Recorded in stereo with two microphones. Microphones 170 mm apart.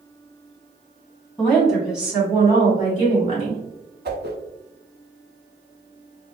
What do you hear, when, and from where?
1.4 s a woman speaking: 5° left (ahead or behind), 1.6 m; by 3.6 s 35° right (ahead or behind), 2.0 m
4.0 s a whoosh: 75° right (ahead or behind), 0.6 m